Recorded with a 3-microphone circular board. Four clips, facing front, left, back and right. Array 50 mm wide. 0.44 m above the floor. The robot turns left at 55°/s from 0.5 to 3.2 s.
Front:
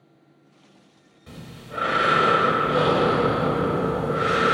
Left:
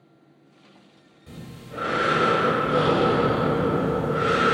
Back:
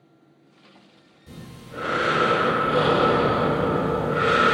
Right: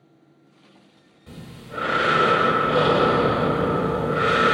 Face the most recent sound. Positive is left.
turn(degrees=-130)